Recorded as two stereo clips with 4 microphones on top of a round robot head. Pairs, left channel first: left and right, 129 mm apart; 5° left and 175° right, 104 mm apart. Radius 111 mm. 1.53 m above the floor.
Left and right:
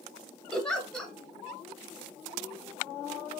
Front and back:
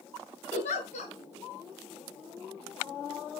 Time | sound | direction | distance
0.5 | a giggle | 5° left | 4.5 m